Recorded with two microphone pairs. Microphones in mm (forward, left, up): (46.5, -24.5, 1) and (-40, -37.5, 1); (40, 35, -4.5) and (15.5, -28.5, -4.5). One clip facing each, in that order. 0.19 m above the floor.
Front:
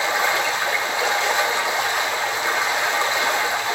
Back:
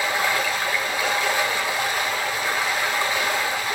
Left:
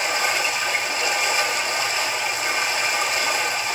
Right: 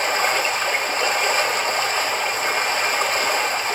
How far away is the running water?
About 1.7 m.